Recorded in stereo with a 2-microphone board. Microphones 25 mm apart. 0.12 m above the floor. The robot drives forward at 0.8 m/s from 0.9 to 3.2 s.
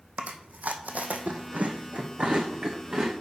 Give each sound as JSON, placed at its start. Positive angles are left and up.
{"t": 0.2, "sound": "chewing", "side_deg": -80, "distance_m": 1.1}